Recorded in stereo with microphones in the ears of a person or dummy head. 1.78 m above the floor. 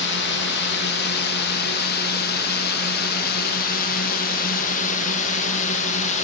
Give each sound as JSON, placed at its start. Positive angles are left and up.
{"t": 0.0, "sound": "a drone", "side_deg": 60}